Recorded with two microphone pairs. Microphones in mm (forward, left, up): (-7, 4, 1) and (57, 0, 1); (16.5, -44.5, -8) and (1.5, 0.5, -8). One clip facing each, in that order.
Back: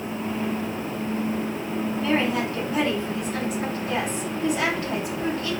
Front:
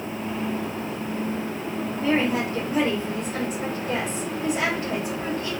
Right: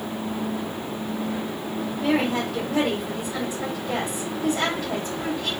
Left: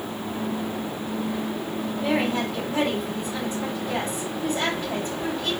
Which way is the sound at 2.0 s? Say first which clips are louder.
Front 2 dB, right 1 dB; 55° right.